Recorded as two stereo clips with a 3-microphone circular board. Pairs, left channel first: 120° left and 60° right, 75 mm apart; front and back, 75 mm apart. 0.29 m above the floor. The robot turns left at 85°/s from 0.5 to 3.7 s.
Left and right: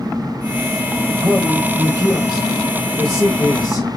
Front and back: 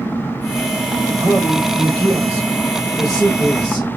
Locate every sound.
1.1 s a man speaking: 15° right, 1.8 m; by 3.9 s 120° left, 1.8 m